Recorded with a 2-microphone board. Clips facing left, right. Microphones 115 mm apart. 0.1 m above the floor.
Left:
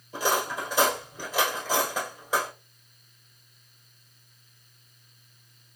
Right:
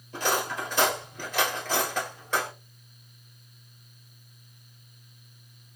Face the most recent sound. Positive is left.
turn(degrees=10)  # may be behind; listen again after turning